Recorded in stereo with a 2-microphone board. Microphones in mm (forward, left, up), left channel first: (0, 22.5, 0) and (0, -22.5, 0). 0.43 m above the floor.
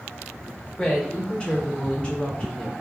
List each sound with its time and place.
0.8 s a woman speaking: 20° left (ahead or behind), 1.4 m